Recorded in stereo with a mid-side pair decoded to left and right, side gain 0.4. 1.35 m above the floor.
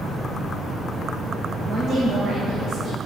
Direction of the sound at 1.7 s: 60° right.